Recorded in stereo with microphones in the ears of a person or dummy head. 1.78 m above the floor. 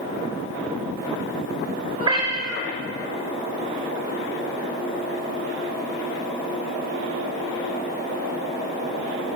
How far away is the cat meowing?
About 2.5 m.